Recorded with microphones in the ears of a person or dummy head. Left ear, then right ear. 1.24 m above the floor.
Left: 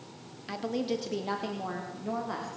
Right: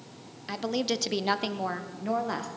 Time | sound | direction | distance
0.5 | a woman speaking | 5° right (ahead or behind) | 0.6 m